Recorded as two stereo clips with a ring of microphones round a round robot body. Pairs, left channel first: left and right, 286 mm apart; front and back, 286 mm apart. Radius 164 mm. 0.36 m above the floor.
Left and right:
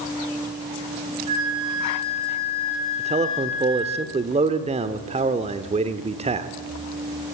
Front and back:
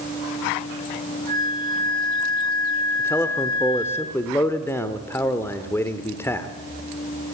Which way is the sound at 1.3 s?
110° right.